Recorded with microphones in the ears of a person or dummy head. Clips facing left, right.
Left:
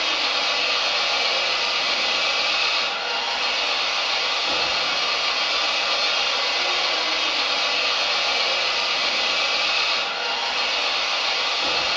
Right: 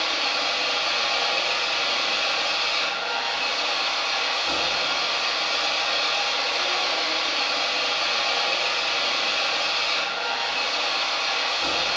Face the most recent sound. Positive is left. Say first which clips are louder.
# left 1 dB
turn(degrees=25)  # may be behind; listen again after turning